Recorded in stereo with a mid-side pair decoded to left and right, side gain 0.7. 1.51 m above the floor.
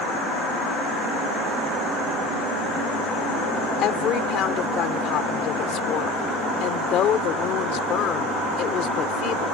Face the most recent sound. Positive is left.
turn(degrees=50)